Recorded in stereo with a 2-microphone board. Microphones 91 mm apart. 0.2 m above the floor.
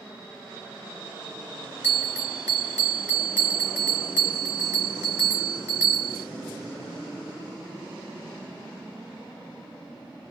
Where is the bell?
20° right (ahead or behind), 2.5 m.